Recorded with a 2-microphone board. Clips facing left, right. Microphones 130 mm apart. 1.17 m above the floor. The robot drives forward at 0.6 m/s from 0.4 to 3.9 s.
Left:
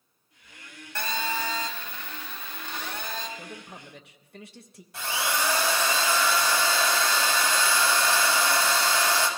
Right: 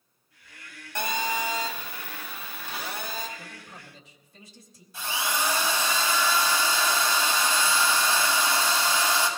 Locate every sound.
0.9 s a phone buzzing: 15° right (ahead or behind), 1.0 m; by 3.3 s 5° right (ahead or behind), 2.5 m
3.4 s a man speaking: 55° left (ahead or behind), 1.2 m; by 4.8 s 65° left (ahead or behind), 1.0 m
4.9 s a drill: 70° left (ahead or behind), 2 m